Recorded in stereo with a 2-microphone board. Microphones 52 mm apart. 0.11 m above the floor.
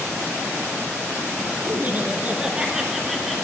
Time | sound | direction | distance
1.7 | laughter | 35° right (ahead or behind) | 1.3 m